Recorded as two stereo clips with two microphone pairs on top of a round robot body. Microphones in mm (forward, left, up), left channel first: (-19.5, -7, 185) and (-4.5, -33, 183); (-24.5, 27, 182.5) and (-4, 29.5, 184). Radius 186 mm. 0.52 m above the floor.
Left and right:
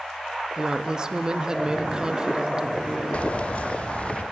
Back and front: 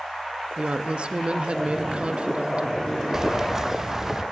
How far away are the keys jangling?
About 0.7 m.